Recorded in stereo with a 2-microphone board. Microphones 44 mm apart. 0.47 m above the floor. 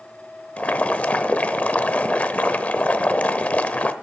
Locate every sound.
0.6 s boiling: 35° left (ahead or behind), 0.8 m